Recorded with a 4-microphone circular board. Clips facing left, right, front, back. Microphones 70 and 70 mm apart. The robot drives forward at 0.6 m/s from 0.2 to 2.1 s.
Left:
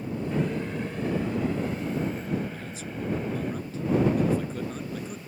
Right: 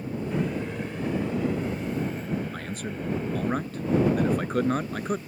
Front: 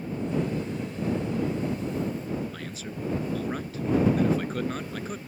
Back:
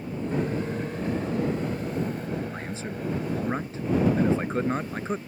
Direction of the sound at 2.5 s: 120° right.